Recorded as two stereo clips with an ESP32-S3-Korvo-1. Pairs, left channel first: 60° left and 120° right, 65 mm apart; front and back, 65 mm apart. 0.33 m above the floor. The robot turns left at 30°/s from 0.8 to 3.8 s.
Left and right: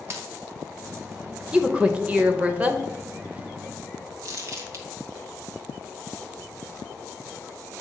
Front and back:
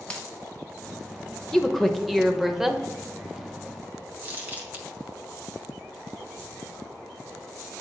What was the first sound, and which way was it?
A dropped coin, 75° right.